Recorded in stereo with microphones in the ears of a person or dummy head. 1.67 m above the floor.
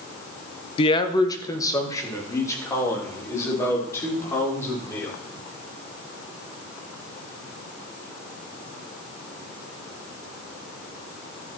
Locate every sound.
0.8 s a man speaking: 30° left (ahead or behind), 0.9 m; by 5.1 s 15° left (ahead or behind), 6 m